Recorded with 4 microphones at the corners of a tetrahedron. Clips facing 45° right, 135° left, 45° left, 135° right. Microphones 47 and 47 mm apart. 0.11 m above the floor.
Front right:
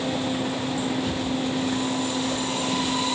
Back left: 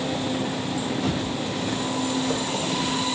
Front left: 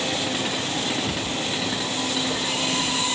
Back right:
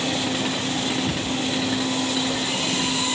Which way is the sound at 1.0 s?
150° left.